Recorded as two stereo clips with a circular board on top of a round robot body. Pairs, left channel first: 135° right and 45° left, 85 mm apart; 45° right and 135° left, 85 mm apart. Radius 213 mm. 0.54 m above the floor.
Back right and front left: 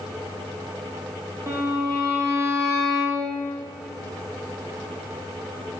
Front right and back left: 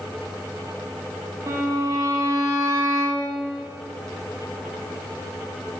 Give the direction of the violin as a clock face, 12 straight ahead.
9 o'clock.